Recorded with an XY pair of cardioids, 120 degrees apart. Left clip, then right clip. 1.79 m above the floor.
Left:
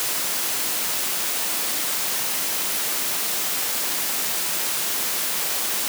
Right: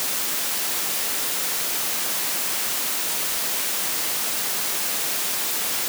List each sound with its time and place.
Only background noise.